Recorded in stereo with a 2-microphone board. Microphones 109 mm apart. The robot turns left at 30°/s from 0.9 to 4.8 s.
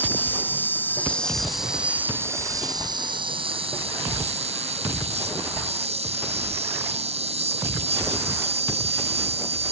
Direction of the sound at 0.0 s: 20° left.